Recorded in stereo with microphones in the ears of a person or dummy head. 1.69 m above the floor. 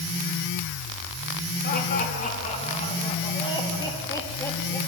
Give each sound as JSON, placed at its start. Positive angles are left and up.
{"t": 1.6, "sound": "laughter", "side_deg": 45, "distance_m": 3.5}